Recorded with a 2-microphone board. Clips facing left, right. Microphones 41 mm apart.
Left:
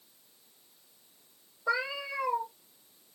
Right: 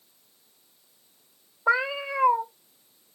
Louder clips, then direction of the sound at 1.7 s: Right 7 dB; 40° right (ahead or behind).